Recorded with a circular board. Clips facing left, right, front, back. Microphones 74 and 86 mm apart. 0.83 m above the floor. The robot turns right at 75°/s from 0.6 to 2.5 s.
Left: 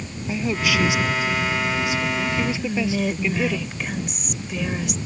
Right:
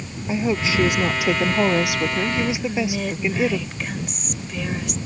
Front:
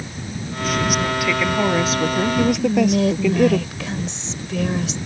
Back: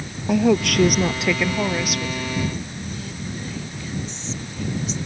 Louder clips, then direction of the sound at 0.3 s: Right 2 dB, back 8 dB; 160° right.